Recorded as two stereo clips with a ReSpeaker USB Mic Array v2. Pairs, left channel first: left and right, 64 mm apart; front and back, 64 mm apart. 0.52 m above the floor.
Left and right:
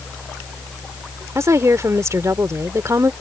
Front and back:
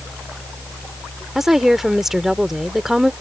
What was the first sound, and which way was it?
A woman speaking, 95° right.